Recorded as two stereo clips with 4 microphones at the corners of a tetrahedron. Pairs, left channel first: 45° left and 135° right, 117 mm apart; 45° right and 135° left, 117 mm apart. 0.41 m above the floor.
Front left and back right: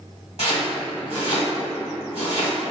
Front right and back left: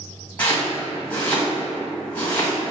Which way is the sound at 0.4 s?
30° left.